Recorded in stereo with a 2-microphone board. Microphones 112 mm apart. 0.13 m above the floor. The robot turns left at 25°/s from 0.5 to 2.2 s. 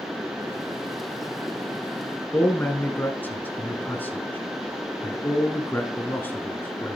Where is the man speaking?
15° left (ahead or behind), 1.2 m.